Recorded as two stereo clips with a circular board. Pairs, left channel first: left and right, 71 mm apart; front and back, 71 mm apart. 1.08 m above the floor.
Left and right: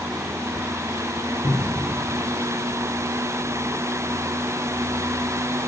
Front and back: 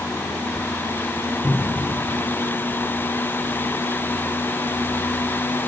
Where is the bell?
No bell in this recording.